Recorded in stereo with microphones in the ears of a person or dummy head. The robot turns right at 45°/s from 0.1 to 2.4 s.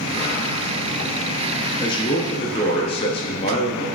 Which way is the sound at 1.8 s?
20° left (ahead or behind).